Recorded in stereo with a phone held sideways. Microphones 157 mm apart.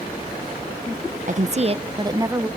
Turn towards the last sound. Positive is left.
turn(degrees=-15)  # may be behind; listen again after turning